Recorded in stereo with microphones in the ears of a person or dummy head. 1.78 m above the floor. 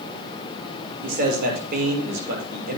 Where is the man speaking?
50° right (ahead or behind), 6.5 m.